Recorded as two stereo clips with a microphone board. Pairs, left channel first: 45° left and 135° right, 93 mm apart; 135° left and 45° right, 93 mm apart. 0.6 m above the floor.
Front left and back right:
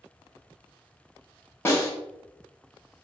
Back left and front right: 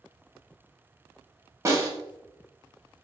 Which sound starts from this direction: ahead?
A snare drum, at 1.6 s.